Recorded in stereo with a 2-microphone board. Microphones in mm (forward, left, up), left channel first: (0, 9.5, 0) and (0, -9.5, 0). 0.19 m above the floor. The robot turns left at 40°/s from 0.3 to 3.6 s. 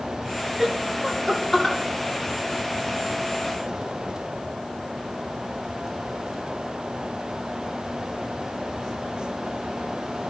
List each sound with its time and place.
0.6 s laughter: 15° right (ahead or behind), 3.5 m; by 1.8 s 25° left (ahead or behind), 3.5 m